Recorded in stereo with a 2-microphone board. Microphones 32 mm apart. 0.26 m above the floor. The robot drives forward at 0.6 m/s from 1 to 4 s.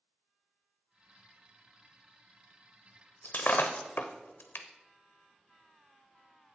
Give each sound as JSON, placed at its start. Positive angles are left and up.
{"t": 3.2, "sound": "breaking glass", "side_deg": 60, "distance_m": 0.9}